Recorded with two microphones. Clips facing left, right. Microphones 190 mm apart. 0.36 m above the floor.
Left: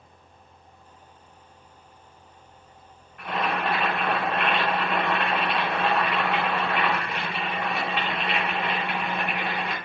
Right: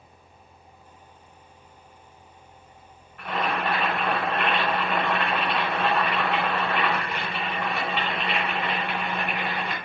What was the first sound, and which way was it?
Boiling, 5° right (ahead or behind).